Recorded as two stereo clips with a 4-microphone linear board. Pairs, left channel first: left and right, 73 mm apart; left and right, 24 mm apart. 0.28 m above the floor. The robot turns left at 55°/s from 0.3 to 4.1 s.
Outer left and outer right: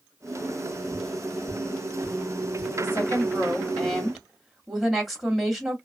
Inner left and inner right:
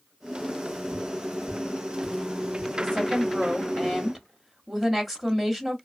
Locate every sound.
0.9 s tapping: 10° left (ahead or behind), 2 m; by 2.7 s 65° left (ahead or behind), 2 m
2.8 s a woman speaking: 70° left, 1.7 m; by 5.8 s 5° right, 1.7 m